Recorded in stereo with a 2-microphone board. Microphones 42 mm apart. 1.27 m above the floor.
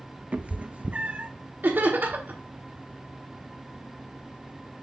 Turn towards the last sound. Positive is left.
turn(degrees=-50)  # may be behind; listen again after turning